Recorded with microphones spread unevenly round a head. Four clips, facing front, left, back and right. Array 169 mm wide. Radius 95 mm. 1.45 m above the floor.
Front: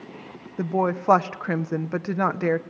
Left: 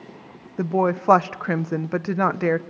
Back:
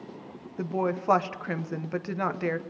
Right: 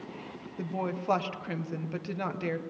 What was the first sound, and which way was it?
A woman speaking, 55° left.